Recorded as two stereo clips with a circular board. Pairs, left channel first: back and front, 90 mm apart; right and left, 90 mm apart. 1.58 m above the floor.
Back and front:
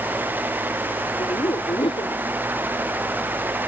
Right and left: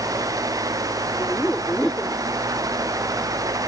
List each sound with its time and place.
1.2 s laughter: 165° right; by 2.2 s 170° right